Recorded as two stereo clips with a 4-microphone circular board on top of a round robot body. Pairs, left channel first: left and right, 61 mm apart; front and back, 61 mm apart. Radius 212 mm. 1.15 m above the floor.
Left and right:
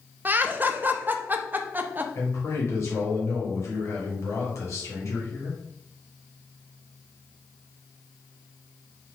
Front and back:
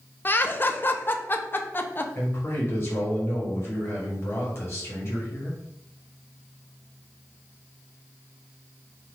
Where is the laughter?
40° right, 0.5 m.